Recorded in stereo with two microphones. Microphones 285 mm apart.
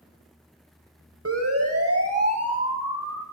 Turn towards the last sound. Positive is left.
turn(degrees=-60)  # may be behind; listen again after turning